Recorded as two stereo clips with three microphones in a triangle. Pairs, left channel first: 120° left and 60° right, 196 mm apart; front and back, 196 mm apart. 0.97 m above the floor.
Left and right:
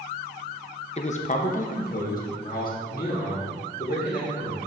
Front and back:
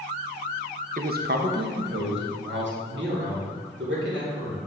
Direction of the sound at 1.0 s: 165° left.